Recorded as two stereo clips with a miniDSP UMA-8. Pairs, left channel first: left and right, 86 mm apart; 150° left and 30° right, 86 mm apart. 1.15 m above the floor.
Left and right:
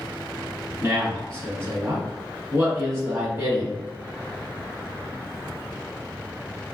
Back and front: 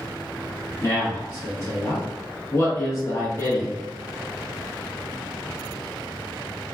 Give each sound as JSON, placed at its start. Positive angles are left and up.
{"t": 0.8, "sound": "a man speaking", "azimuth_deg": -150, "distance_m": 1.3}